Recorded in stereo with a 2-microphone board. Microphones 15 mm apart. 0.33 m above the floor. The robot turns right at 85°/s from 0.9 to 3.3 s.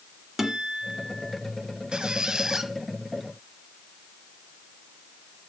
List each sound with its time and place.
0.4 s a guitar: 20° right, 1.4 m; by 1.4 s 20° left, 1.4 m
1.9 s a squeak: 95° right, 1.0 m; by 2.7 s 25° right, 1.0 m